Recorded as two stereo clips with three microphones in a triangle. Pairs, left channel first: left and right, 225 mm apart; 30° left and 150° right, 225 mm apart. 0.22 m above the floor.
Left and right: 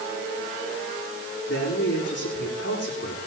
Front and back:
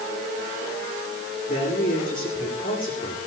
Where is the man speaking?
85° left, 9.5 m.